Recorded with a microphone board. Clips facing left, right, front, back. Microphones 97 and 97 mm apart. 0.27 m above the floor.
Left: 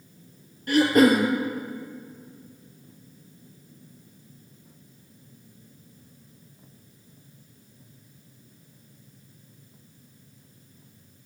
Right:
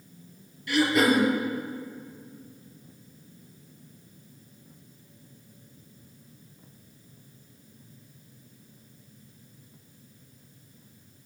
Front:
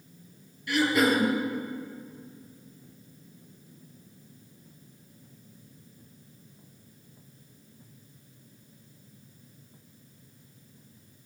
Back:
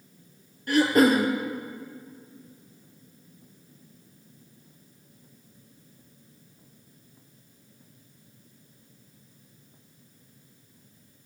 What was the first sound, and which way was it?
Throat clearing, 135° left.